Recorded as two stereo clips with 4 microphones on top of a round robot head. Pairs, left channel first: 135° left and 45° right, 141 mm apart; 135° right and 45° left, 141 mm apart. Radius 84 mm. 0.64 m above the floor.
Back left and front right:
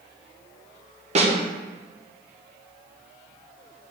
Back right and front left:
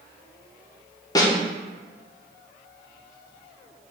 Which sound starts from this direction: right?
A snare drum, at 1.1 s.